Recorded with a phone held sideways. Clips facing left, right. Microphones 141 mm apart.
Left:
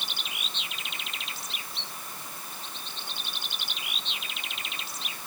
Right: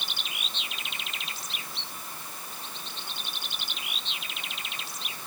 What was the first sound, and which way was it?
Only background noise.